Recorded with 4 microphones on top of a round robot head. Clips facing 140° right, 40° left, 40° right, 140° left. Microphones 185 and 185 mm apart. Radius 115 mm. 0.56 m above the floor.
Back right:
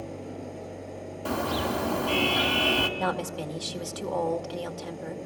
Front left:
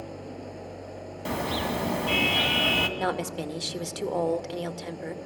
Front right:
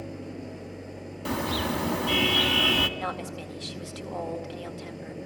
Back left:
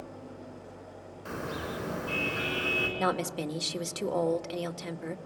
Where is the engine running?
60° right, 5 m.